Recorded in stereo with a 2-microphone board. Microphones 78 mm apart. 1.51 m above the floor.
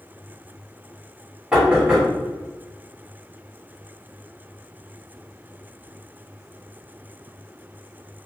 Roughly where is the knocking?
Centre.